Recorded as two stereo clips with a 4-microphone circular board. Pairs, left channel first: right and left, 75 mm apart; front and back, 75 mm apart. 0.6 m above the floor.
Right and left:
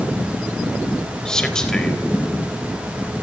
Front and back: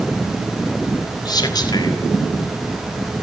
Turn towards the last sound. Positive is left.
turn(degrees=-10)